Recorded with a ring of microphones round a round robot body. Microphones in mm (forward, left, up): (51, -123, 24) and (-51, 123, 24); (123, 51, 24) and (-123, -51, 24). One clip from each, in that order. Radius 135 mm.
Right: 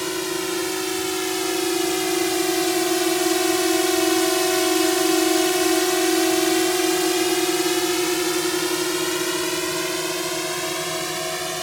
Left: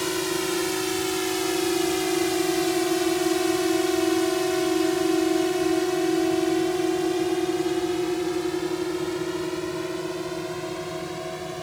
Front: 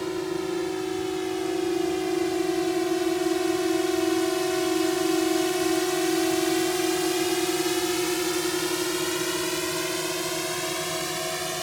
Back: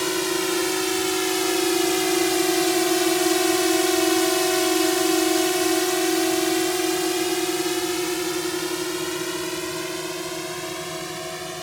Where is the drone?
150° right; by 11.7 s 50° right.